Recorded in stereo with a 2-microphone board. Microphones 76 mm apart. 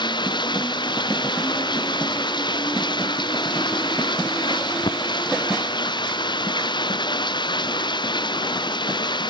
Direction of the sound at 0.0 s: 85° left.